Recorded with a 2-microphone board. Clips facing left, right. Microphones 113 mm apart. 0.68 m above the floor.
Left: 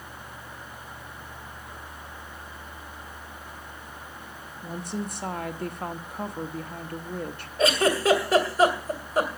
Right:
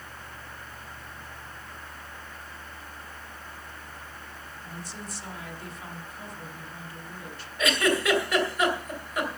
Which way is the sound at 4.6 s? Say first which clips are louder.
Left 10 dB; 55° left (ahead or behind).